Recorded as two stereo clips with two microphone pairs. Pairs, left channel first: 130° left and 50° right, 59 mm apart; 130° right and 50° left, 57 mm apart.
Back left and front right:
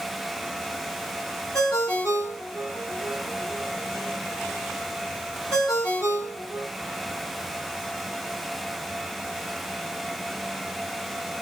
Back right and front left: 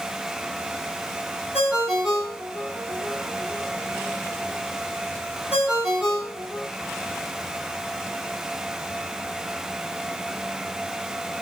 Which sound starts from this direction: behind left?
A ringtone, at 1.5 s.